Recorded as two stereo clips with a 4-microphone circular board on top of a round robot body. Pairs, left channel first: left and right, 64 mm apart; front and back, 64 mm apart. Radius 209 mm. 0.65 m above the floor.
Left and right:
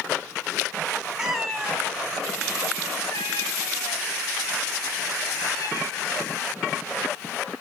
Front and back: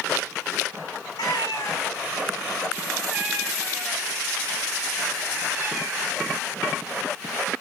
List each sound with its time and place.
1.2 s a cat meowing: 10° right, 1.1 m; by 6.4 s 120° left, 4.5 m